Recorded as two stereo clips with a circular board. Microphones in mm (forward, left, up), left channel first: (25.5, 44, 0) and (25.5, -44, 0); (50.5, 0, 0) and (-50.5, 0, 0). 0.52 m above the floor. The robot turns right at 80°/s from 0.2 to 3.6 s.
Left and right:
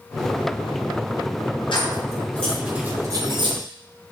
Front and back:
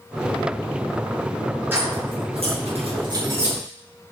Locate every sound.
1.7 s keys jangling: 110° left, 6 m; by 3.6 s 100° right, 6 m